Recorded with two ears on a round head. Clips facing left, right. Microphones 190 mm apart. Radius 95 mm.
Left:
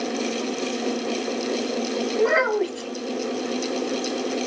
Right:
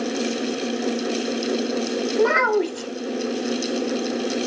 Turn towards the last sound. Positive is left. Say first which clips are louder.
# right 1 dB
turn(degrees=-65)  # may be behind; listen again after turning